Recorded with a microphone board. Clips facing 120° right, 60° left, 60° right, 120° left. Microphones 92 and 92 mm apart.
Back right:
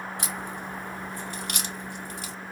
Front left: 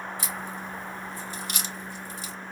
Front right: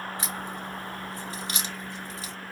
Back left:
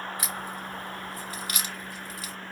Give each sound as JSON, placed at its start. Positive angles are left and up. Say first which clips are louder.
{"t": 0.2, "sound": "a crack", "louder": "back right 1 dB, even", "azimuth_deg": -120, "distance_m": 0.9}